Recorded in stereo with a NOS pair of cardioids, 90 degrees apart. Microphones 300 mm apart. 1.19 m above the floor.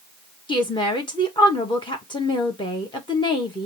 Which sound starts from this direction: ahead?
A woman speaking, at 0.5 s.